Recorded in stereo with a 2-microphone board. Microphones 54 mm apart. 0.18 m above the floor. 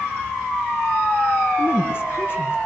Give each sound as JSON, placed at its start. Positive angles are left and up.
{"t": 1.6, "sound": "a woman speaking", "side_deg": 45, "distance_m": 2.5}